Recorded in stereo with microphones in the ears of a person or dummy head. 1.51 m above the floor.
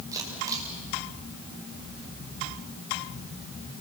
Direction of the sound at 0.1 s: 25° right (ahead or behind).